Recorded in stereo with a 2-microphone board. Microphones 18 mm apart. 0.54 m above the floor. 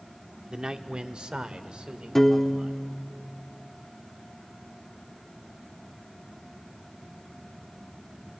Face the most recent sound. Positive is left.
turn(degrees=15)  # may be behind; listen again after turning